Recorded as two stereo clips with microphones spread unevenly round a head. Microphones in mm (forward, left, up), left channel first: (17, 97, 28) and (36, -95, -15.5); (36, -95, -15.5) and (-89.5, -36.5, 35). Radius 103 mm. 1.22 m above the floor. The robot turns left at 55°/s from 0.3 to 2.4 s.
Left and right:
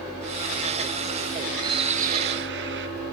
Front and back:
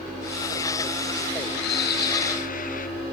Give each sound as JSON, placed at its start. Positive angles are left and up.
{"t": 1.6, "sound": "a bird", "azimuth_deg": -10, "distance_m": 3.0}